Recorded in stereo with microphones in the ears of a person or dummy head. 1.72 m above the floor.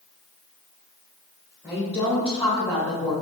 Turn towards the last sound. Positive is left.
turn(degrees=25)  # may be behind; listen again after turning